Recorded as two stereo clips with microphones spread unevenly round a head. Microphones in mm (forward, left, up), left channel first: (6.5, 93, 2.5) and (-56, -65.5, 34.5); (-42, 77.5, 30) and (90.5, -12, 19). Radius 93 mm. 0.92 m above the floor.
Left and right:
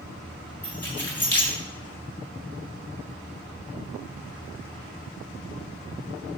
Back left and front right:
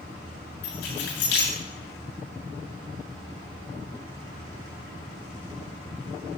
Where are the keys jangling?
150° left, 8 m.